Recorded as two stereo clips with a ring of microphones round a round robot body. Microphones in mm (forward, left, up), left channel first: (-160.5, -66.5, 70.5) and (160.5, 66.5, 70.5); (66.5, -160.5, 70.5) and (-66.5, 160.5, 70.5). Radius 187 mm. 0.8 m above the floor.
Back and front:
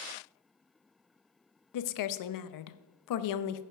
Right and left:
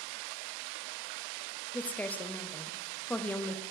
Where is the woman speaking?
155° right, 0.7 m.